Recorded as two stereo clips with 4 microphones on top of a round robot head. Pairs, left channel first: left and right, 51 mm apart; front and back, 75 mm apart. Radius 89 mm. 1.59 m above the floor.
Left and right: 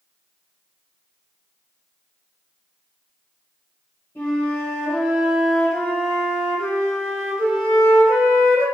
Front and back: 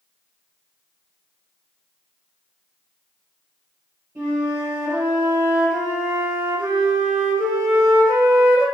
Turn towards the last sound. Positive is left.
turn(degrees=135)